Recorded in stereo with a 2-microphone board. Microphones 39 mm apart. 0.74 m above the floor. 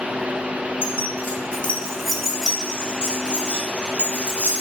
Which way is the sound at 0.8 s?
60° left (ahead or behind).